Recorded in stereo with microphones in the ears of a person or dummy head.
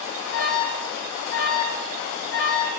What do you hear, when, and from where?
0.3 s an alarm: 60° left (ahead or behind), 1.7 m